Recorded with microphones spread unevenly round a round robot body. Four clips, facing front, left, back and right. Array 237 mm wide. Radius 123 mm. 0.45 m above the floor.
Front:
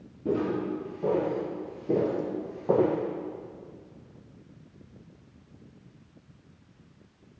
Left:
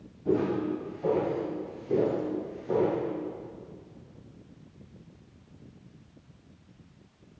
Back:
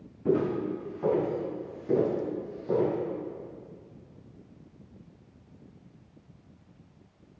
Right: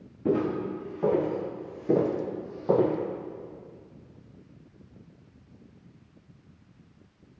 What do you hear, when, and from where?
0.2 s footsteps: 90° right, 2 m; by 3.0 s 40° right, 0.8 m